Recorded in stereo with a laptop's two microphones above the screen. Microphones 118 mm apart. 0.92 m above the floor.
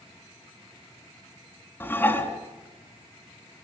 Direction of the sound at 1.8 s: 15° left (ahead or behind).